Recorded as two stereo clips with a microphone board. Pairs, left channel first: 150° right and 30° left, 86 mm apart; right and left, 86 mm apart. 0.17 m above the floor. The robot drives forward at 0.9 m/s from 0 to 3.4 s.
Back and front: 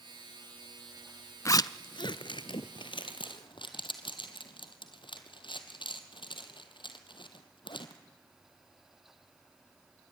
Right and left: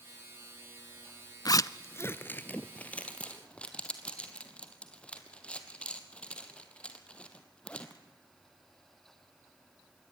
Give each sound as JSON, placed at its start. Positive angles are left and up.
{"t": 1.4, "sound": "a zipper", "azimuth_deg": -110, "distance_m": 0.6}